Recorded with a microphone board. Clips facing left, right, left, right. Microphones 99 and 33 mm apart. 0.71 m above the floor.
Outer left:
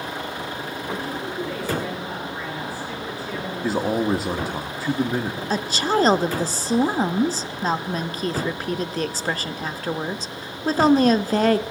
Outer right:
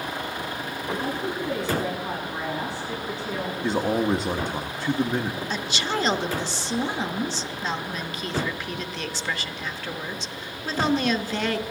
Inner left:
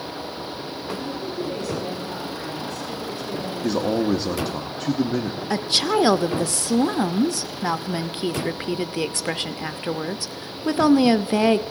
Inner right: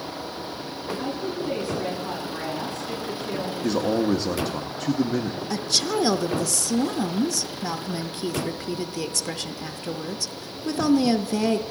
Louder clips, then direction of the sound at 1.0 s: Even, inner right 1 dB; 25° right (ahead or behind).